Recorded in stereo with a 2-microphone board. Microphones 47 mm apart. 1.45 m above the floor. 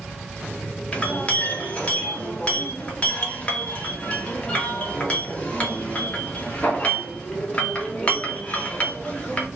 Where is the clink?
25° left (ahead or behind), 1.0 m.